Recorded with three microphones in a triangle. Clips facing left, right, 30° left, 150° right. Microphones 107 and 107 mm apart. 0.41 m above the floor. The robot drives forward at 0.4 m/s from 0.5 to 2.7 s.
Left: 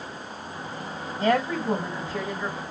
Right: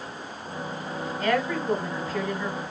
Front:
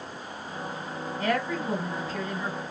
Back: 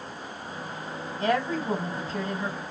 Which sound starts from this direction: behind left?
A woman speaking, at 1.2 s.